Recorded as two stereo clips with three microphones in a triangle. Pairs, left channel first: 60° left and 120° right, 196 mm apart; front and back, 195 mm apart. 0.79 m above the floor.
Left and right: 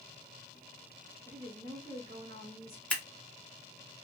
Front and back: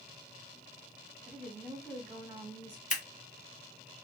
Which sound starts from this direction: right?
A woman speaking, at 1.2 s.